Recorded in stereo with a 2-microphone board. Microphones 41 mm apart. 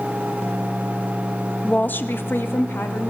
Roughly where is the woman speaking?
Left.